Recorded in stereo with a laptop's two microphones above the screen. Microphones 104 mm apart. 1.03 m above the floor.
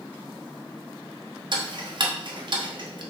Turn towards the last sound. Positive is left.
turn(degrees=-50)  # may be behind; listen again after turning